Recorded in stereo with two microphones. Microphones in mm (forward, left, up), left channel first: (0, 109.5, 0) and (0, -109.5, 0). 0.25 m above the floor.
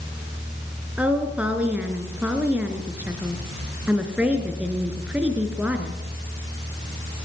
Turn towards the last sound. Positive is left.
turn(degrees=-5)  # may be behind; listen again after turning